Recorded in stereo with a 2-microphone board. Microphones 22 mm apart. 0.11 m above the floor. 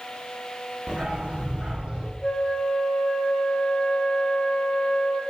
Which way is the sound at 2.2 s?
45° left (ahead or behind).